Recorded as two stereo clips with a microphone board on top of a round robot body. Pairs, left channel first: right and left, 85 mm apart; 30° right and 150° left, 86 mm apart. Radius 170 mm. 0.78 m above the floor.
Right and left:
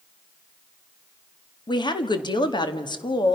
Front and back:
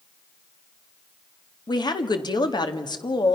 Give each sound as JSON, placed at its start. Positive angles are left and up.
{"t": 1.7, "sound": "a woman speaking", "azimuth_deg": -60, "distance_m": 1.8}